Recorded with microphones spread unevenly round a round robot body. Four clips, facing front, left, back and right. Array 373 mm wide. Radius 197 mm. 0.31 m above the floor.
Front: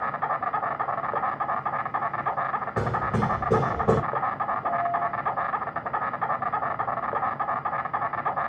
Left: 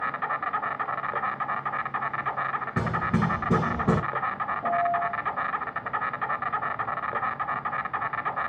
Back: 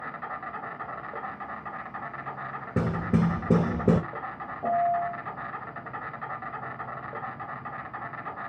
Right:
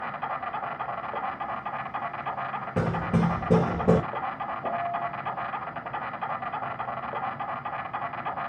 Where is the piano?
175° left, 1.8 m.